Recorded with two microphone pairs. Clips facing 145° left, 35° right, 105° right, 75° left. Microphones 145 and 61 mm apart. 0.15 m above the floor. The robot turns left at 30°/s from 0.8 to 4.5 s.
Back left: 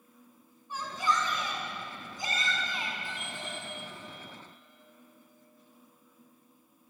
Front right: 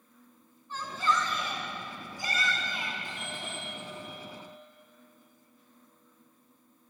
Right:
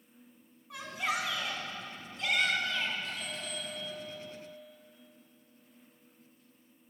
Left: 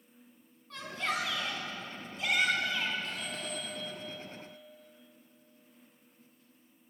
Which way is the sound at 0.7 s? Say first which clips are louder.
Front right 1 dB, right 1 dB; 155° right.